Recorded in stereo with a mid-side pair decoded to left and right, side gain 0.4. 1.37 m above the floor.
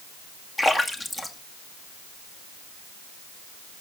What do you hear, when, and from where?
0.6 s a splash: 20° left, 2.5 m